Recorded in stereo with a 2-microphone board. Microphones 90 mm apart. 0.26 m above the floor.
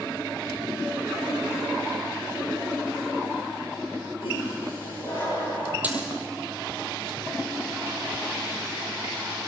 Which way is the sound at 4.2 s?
75° left (ahead or behind).